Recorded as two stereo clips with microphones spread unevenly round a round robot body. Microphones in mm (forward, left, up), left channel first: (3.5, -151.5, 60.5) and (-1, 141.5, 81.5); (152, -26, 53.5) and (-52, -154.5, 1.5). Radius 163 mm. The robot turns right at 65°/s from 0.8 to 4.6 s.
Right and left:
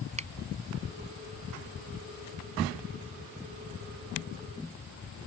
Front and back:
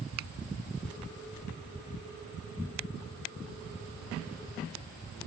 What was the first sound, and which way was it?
A finger snap, 160° left.